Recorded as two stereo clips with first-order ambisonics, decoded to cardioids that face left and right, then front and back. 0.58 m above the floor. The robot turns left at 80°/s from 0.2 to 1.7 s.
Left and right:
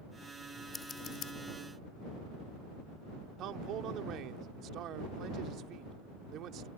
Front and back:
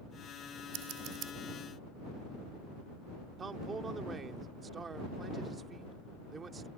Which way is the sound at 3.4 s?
115° right.